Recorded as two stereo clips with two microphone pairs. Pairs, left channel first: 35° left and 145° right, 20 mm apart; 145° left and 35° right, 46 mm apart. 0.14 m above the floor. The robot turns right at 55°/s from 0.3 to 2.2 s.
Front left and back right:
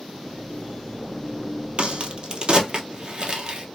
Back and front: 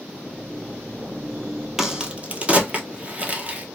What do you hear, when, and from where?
1.8 s a crack: 115° right, 0.8 m; by 3.7 s 95° right, 0.8 m